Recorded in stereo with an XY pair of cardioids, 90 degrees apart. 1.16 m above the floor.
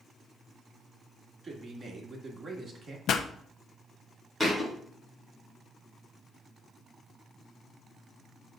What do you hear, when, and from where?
1.4 s a man speaking: 30° right, 2.5 m
3.1 s a pop: 70° left, 0.6 m
4.4 s a thud: 10° left, 3 m